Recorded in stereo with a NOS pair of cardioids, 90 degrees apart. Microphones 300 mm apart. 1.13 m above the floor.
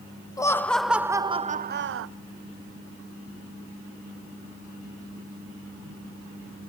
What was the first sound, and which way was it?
Laughter, 10° left.